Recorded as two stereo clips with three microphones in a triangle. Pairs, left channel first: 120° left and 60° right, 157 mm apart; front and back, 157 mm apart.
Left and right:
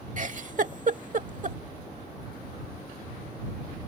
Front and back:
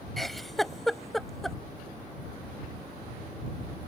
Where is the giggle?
90° right.